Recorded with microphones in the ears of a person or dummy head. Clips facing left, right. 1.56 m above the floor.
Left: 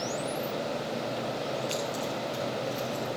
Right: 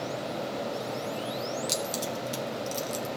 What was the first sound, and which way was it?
Keys jangling, 55° right (ahead or behind).